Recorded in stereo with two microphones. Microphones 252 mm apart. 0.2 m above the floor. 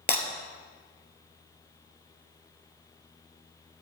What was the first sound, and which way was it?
Breaking glass, 40° left (ahead or behind).